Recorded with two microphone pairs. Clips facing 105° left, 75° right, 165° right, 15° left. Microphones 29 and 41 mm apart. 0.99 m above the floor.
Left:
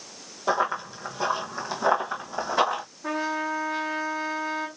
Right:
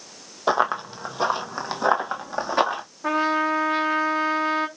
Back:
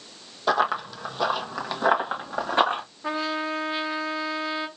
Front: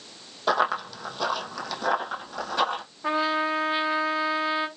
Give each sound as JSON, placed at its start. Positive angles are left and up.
{"t": 0.5, "sound": "running footsteps", "azimuth_deg": -75, "distance_m": 1.4}
{"t": 3.0, "sound": "a trumpet", "azimuth_deg": -60, "distance_m": 0.8}